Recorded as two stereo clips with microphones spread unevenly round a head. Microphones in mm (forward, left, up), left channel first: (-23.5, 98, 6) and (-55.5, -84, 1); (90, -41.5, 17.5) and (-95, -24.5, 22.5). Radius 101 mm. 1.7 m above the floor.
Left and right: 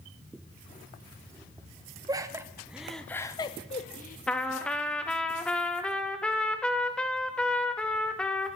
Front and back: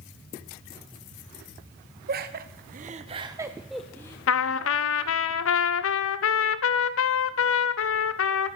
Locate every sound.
2.1 s laughter: 165° right, 1.1 m; by 4.2 s 65° left, 0.9 m
4.3 s a trumpet: 5° right, 0.6 m